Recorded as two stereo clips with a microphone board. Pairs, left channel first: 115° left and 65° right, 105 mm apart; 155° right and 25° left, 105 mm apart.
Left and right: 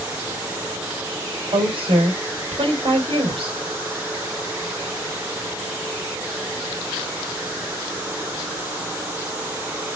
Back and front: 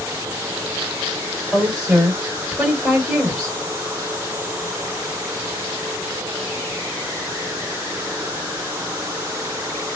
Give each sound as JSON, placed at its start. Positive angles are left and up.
{"t": 1.5, "sound": "a woman speaking", "azimuth_deg": -65, "distance_m": 2.5}